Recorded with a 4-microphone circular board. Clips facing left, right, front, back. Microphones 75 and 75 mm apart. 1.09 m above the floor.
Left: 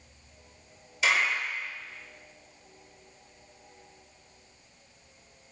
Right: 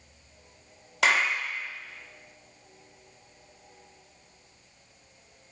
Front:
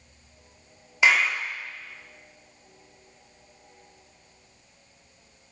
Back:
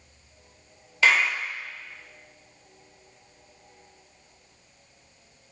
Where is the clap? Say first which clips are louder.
Right 2 dB, even; 70° right, 2 m.